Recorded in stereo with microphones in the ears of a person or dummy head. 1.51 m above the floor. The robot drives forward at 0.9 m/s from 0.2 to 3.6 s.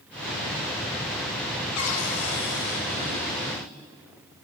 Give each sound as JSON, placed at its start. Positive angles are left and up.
{"t": 1.8, "sound": "a cupboard door", "side_deg": 85, "distance_m": 1.0}